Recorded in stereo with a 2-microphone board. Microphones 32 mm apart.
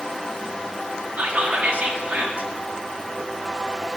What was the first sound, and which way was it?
Whispering, 50° right (ahead or behind).